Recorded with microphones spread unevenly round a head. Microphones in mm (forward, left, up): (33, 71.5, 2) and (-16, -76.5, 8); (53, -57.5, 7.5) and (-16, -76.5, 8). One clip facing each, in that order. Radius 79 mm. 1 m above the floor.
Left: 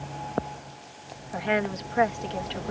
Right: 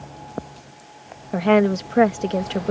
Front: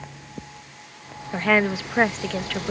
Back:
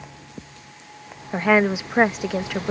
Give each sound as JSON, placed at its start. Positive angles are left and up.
{"t": 1.3, "sound": "a woman speaking", "azimuth_deg": -95}